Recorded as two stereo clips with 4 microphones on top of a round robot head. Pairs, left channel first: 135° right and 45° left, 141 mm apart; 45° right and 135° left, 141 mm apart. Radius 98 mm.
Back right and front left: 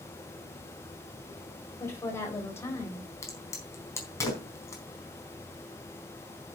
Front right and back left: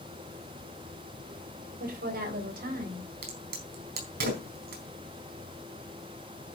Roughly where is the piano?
I don't hear a piano.